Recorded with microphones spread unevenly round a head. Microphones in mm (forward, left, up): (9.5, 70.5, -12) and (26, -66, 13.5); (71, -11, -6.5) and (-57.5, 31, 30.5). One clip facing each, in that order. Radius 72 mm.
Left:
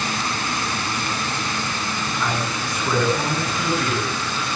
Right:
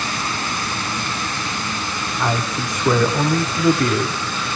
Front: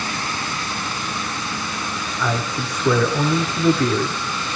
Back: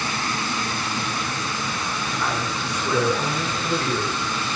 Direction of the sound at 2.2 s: 35° right.